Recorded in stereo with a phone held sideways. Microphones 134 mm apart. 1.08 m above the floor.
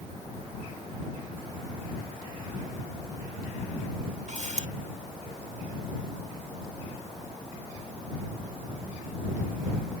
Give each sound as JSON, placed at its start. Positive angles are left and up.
{"t": 4.3, "sound": "a camera shutter", "side_deg": -60}